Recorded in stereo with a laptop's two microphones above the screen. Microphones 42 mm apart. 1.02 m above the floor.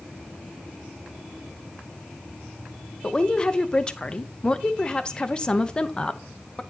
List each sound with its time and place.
3.0 s a woman speaking: 20° left (ahead or behind), 0.6 m